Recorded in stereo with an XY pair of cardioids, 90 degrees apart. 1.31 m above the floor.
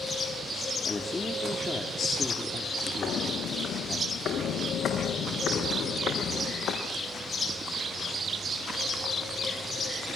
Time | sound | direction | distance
0.8 | a man speaking | 25° left | 3.5 m
3.0 | footsteps | 70° left | 4.5 m